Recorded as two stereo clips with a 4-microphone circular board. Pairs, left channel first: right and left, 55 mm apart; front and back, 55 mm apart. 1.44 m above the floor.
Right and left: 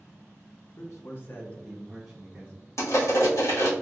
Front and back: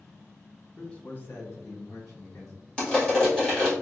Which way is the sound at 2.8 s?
75° right.